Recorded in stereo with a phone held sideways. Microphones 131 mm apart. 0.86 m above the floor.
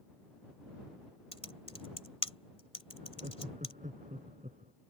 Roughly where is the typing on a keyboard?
Left.